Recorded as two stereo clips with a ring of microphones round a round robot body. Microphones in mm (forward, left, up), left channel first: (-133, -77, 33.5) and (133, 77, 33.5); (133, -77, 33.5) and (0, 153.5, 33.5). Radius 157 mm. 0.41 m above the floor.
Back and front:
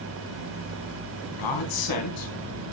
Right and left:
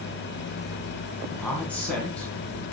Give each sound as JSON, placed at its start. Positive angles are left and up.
{"t": 1.4, "sound": "a man speaking", "azimuth_deg": -145, "distance_m": 3.0}